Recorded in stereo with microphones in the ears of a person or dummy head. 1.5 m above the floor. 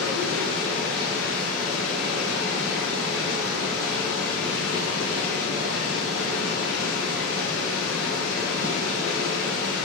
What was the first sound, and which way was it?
Running water, 5° left (ahead or behind).